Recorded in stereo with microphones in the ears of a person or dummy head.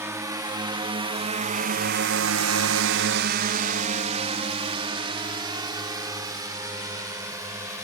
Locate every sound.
0.0 s a drone: 20° right (ahead or behind); by 7.8 s 15° right (ahead or behind)